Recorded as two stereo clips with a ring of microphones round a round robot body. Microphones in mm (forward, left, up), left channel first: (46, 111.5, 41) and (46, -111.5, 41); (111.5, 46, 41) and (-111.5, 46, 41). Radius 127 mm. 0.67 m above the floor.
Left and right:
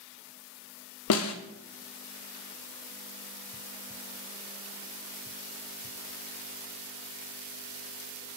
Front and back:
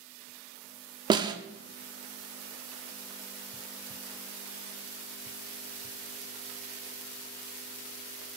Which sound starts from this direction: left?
A snare drum, at 1.1 s.